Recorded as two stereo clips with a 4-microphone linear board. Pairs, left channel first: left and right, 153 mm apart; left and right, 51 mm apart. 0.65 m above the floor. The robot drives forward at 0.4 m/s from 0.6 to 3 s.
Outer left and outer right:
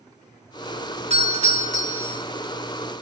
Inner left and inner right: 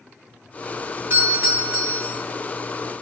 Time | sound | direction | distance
1.1 | a doorbell | 45° right (ahead or behind) | 2 m